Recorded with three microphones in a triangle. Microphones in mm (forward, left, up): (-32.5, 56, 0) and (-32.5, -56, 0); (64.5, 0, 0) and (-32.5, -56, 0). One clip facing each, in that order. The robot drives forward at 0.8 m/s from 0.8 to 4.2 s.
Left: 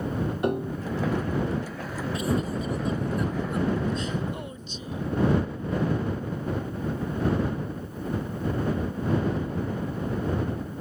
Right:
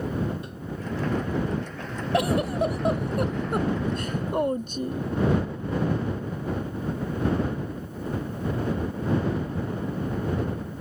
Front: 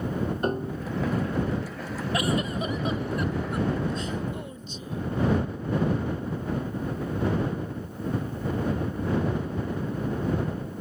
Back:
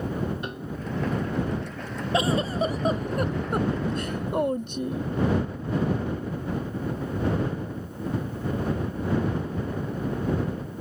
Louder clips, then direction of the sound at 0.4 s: Left 8 dB, front 5 dB; 75° left.